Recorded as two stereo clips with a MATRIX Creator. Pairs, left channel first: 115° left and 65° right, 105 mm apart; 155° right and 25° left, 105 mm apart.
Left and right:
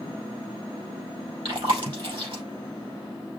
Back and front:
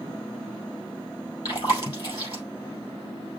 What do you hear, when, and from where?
1.4 s chewing: 105° right, 5 m